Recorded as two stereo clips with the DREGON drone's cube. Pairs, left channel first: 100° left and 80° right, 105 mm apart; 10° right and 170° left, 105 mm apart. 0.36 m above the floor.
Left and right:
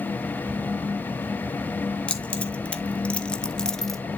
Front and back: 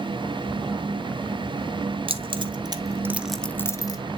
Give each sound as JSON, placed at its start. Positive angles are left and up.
{"t": 2.1, "sound": "keys jangling", "azimuth_deg": 180, "distance_m": 1.3}